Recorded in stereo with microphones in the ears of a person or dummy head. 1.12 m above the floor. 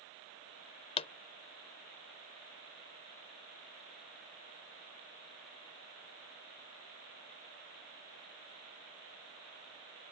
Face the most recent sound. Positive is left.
turn(degrees=40)  # may be behind; listen again after turning